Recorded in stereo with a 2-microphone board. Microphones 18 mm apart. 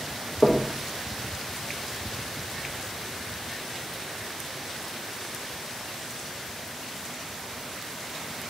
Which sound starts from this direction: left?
Knocking, at 0.4 s.